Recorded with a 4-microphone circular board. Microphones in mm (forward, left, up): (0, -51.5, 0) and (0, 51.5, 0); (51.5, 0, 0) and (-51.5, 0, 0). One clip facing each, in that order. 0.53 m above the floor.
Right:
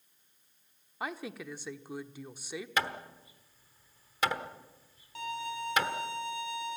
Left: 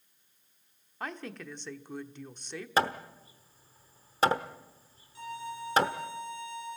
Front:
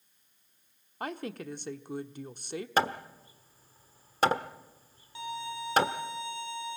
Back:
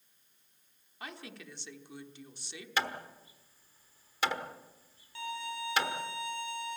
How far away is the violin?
About 3 m.